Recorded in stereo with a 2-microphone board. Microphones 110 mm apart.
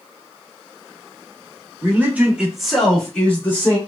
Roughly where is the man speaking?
Right.